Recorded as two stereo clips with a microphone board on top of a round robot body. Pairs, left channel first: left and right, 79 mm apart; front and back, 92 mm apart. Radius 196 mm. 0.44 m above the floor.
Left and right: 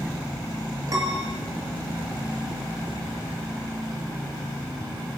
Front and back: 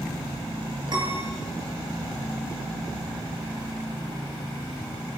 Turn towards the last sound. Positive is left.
turn(degrees=-135)